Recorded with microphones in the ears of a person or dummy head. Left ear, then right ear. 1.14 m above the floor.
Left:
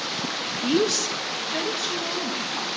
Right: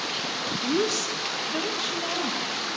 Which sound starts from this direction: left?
A woman speaking, at 0.6 s.